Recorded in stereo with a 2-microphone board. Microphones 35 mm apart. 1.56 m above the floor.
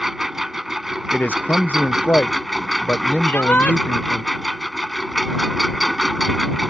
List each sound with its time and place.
0.0 s a lawn mower: 5° right (ahead or behind)
1.1 s a man speaking: 70° left (ahead or behind)
3.2 s a shout: 75° left (ahead or behind)